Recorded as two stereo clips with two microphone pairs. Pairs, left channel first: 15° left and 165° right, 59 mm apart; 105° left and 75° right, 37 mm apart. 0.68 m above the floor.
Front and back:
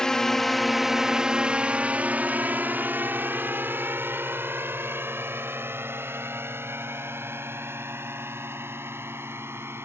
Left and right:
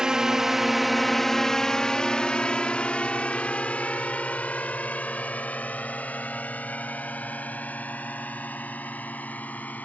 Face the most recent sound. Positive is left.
turn(degrees=150)